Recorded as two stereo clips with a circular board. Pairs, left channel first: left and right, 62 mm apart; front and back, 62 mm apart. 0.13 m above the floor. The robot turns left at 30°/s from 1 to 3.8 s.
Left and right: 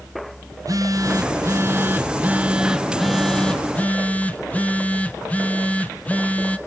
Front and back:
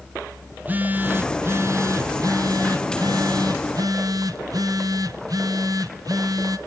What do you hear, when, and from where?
0.5 s a phone buzzing: 120° right, 1.0 m; by 6.6 s 160° left, 1.0 m